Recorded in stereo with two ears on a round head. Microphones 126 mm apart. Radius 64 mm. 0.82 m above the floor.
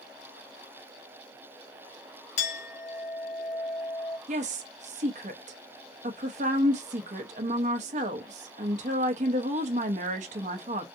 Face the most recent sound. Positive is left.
turn(degrees=-50)  # may be behind; listen again after turning